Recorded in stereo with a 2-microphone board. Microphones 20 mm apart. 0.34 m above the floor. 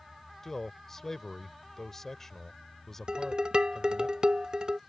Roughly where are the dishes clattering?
Right.